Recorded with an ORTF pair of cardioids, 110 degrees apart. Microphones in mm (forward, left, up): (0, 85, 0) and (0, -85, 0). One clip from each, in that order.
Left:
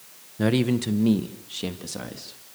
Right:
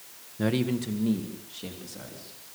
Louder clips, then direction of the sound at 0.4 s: Left 5 dB; 25° left.